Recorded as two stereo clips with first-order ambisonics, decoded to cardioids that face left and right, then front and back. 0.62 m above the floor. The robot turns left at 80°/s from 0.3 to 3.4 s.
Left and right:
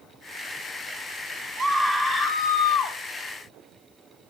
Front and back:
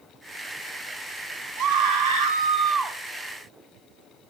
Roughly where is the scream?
Behind right.